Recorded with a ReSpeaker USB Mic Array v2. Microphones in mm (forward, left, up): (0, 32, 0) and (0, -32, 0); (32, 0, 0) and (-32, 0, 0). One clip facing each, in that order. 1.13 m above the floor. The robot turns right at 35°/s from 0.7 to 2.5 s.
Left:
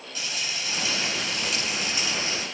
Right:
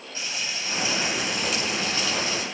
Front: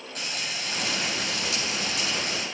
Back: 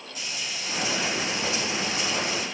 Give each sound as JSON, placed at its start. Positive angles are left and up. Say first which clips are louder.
{"t": 0.1, "sound": "frying", "louder": "even, front 2 dB", "azimuth_deg": -30, "distance_m": 9.0}